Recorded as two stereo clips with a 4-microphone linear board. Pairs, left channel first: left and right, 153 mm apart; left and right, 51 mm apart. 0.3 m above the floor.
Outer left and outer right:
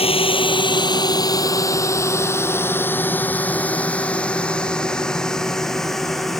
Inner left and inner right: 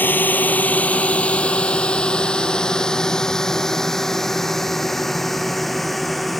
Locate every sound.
0.0 s a drone: 40° left (ahead or behind); by 6.4 s centre (ahead or behind)